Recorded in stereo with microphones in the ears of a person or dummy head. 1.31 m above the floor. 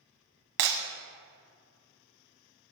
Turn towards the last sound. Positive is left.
turn(degrees=-45)  # may be behind; listen again after turning